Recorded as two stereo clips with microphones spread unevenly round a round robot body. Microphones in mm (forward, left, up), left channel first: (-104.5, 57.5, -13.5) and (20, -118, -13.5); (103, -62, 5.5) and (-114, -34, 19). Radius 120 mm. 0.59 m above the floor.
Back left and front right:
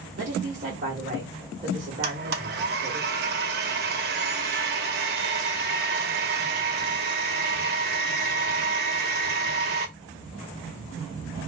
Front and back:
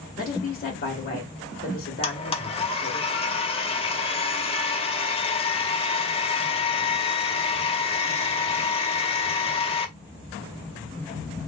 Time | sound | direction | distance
0.2 | a woman speaking | 10° right | 1.0 m
2.0 | a blender | 55° right | 0.6 m